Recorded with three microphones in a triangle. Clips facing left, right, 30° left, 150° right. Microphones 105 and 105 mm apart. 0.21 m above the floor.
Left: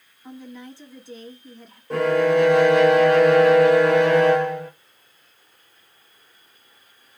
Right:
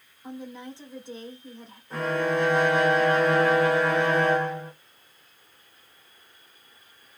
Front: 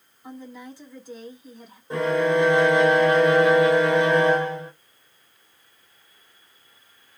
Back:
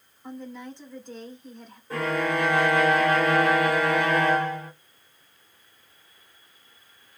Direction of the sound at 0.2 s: 50° right.